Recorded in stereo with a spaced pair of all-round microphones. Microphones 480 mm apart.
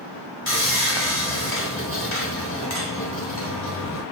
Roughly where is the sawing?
Left.